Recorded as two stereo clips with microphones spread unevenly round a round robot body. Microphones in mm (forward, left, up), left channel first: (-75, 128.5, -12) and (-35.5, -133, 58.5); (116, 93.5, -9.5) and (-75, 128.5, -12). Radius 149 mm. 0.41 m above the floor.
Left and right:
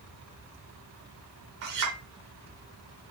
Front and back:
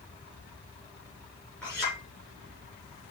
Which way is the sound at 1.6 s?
95° right.